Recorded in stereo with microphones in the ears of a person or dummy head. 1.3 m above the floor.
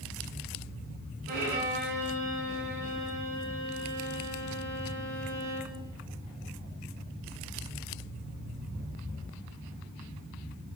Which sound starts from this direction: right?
A violin, at 1.3 s.